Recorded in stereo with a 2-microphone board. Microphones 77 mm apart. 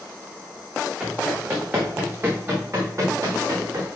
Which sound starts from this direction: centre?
Running footsteps, at 1.0 s.